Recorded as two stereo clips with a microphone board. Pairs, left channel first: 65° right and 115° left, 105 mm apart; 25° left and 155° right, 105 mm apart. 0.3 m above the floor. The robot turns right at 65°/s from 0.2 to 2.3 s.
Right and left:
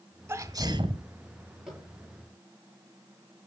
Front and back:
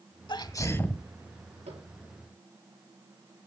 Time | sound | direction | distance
0.3 | a sneeze | 55° left | 1.6 m
1.7 | tapping | 160° right | 7 m